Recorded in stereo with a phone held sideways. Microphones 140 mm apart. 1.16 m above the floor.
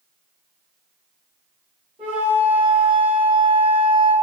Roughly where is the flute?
Right.